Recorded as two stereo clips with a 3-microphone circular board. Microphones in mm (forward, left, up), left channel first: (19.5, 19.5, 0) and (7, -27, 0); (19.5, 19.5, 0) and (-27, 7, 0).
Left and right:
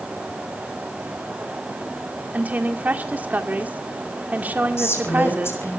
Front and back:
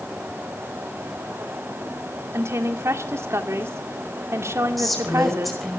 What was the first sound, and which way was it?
A woman speaking, 160° right.